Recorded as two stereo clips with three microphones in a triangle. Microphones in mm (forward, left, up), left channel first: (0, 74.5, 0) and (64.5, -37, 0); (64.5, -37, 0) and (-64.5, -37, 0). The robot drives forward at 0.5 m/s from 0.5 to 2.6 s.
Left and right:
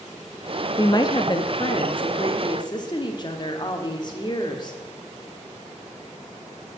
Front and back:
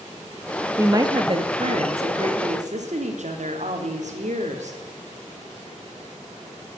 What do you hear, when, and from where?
0.8 s a woman speaking: 135° left, 0.6 m; by 4.8 s 170° left, 1.2 m